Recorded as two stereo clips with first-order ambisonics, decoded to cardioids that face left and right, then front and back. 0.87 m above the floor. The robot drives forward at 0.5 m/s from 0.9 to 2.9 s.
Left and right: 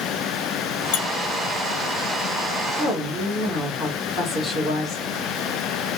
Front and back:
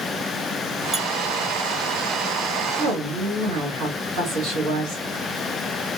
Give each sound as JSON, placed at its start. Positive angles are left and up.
{"t": 0.9, "sound": "a squeak", "azimuth_deg": 95, "distance_m": 0.6}
{"t": 2.8, "sound": "a woman speaking", "azimuth_deg": 170, "distance_m": 1.7}